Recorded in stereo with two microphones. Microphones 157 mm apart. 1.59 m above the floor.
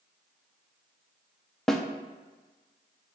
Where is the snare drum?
5° left (ahead or behind), 0.5 m.